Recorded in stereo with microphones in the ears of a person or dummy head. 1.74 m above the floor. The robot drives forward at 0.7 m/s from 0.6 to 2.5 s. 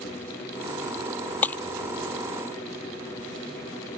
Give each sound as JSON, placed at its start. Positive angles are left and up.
{"t": 1.4, "sound": "breaking glass", "side_deg": 10}